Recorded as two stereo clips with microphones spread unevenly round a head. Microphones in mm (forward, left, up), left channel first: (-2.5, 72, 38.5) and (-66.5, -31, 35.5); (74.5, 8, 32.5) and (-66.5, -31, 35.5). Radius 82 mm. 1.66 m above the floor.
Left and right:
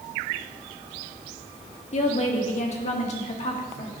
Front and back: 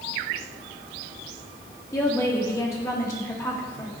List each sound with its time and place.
1.9 s a woman speaking: 90° left, 1.1 m